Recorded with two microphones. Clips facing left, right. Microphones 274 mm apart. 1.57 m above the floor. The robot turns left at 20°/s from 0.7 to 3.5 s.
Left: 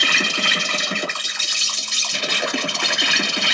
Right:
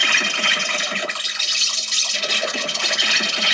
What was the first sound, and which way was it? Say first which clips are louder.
An insect: left 3 dB; 130° left.